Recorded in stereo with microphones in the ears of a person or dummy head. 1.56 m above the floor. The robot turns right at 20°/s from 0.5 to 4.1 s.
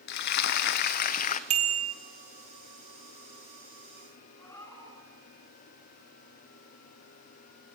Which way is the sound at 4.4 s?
10° left (ahead or behind).